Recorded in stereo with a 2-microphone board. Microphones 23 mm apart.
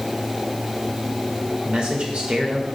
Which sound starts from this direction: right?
A man speaking, at 1.6 s.